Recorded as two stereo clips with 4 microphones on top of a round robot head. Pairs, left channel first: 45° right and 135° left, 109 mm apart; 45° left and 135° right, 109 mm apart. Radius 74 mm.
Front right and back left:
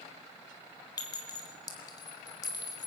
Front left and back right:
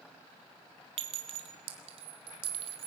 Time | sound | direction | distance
1.0 | a clink | 100° right | 2 m